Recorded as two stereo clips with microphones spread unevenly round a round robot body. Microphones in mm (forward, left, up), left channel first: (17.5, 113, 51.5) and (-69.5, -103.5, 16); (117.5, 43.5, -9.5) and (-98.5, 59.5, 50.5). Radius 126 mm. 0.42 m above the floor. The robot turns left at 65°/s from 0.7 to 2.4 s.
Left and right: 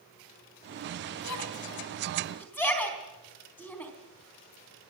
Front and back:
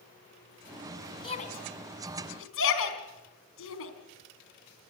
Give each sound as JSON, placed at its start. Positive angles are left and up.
{"t": 1.2, "sound": "a shout", "azimuth_deg": 60, "distance_m": 3.5}